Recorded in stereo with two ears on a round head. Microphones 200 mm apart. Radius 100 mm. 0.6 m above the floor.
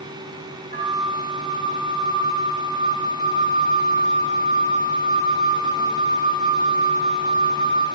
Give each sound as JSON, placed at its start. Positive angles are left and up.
{"t": 0.7, "sound": "a flute", "side_deg": -35, "distance_m": 0.7}